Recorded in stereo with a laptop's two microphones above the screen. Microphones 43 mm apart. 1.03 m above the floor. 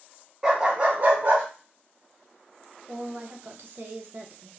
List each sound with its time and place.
0.4 s a dog barking: 15° right (ahead or behind), 0.8 m; by 1.4 s 55° right (ahead or behind), 0.9 m
2.9 s a woman speaking: 50° right (ahead or behind), 0.6 m